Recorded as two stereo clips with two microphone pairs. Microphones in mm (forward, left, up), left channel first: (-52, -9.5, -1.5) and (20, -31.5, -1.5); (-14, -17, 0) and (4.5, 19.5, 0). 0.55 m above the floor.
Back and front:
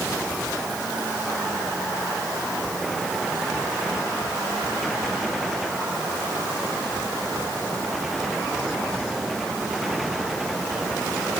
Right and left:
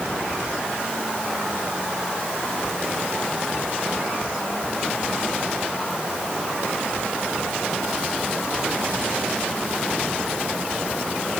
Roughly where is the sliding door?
No sliding door in this recording.